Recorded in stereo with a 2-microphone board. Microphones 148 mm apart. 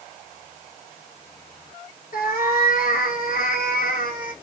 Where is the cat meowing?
65° left (ahead or behind), 0.9 m.